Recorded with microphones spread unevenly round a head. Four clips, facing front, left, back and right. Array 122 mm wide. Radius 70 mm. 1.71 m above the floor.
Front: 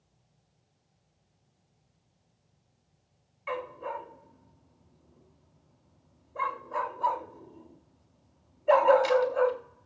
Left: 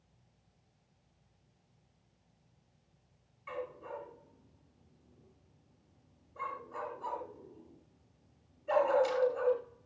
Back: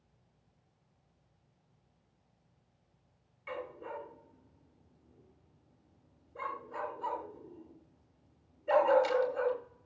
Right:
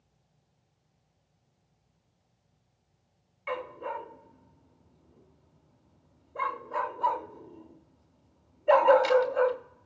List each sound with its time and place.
3.5 s a dog barking: 70° right, 2 m